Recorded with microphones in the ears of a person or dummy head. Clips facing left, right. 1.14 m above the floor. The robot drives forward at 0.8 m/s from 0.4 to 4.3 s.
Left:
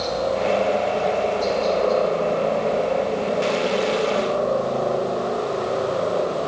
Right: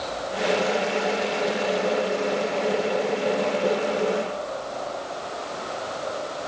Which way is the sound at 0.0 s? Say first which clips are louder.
Left 6 dB; 75° left (ahead or behind).